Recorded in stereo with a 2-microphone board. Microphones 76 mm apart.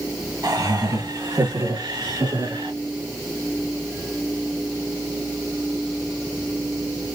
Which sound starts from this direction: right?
Laughter, at 0.4 s.